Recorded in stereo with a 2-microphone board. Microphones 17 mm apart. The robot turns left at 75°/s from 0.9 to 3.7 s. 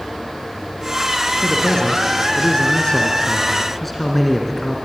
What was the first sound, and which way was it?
A man speaking, 175° right.